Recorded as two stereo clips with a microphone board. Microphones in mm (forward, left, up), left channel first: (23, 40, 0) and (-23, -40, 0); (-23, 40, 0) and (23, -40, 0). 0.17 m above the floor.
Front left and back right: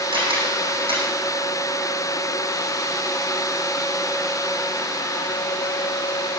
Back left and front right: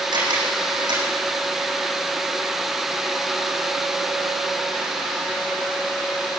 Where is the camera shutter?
100° right, 9 m.